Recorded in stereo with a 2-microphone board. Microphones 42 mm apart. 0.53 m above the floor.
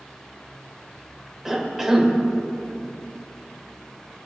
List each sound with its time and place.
1.4 s a cough: 10° right (ahead or behind), 2 m